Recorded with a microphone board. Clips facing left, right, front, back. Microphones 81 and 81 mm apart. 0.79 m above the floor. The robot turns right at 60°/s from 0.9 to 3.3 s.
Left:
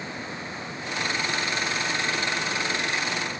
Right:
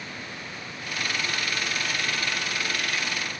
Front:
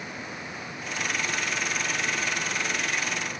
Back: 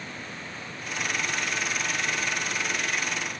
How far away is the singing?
No singing in this recording.